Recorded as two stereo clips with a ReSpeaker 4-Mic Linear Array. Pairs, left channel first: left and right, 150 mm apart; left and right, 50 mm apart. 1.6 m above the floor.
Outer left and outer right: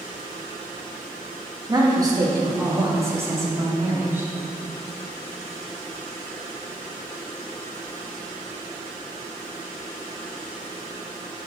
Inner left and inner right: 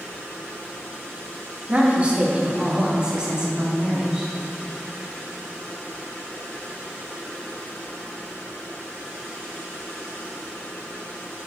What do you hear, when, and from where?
1.7 s a woman speaking: 30° right (ahead or behind), 2 m; by 4.3 s 15° right (ahead or behind), 3.5 m